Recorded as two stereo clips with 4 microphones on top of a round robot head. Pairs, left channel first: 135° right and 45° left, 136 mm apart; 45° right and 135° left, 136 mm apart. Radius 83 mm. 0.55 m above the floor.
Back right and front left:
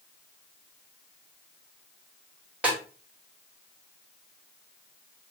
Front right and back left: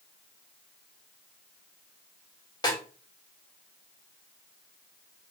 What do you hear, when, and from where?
2.6 s a snare drum: 25° right, 1.2 m